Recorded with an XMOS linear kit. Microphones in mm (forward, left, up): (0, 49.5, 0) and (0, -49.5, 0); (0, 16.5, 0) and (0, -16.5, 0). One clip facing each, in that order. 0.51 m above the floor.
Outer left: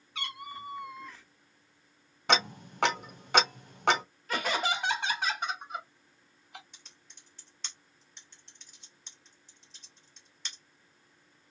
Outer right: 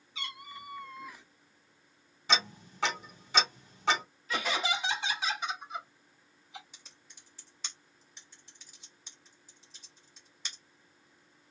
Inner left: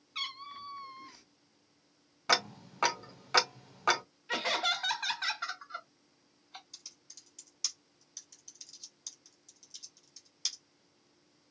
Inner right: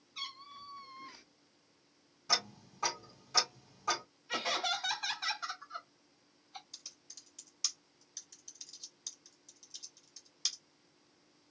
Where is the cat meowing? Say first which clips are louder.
Outer left 4 dB, inner left 5 dB; 60° left (ahead or behind), 0.8 m; by 1.2 s 20° right (ahead or behind), 0.6 m.